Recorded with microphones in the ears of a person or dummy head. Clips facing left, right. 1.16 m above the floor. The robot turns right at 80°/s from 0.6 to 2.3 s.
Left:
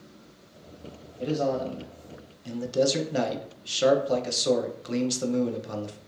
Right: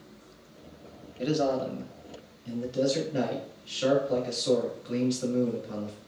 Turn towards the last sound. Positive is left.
turn(degrees=65)